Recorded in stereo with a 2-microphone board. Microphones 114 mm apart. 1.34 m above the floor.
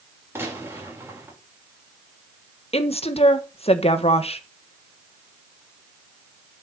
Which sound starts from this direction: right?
A gunshot, at 0.3 s.